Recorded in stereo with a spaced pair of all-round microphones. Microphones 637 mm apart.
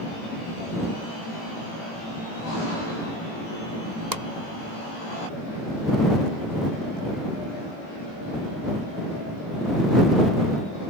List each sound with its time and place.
4.1 s a pop: 80° right